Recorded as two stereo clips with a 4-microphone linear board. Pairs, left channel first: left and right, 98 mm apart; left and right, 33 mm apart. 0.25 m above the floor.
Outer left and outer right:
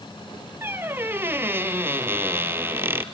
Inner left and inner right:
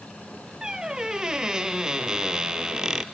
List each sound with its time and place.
0.6 s a squeak: 25° right (ahead or behind), 0.6 m